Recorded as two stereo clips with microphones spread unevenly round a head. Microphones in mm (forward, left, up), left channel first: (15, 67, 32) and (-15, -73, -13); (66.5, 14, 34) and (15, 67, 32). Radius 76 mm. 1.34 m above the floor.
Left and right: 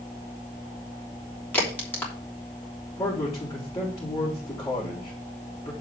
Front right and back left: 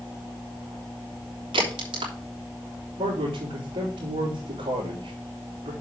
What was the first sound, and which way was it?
A crack, 155° left.